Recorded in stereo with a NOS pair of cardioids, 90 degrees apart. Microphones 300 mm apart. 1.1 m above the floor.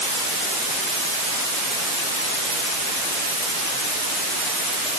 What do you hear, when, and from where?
Only background noise.